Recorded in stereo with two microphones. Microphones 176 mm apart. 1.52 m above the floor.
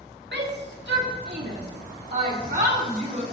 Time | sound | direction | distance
0.3 | a shout | 85° right | 2.0 m